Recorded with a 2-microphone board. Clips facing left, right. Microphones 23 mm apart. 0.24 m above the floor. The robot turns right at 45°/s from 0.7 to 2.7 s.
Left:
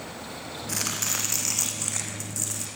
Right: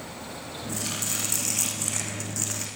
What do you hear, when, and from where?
0.7 s chopping: 125° left, 6.5 m; by 2.7 s 150° right, 6.5 m